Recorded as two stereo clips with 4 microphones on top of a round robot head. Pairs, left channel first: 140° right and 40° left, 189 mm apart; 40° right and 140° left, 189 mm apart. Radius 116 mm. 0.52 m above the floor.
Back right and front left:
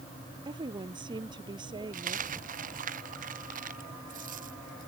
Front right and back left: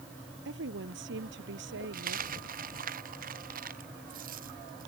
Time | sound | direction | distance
0.5 | a woman speaking | 110° left | ?
1.9 | a dropped coin | 90° left | ?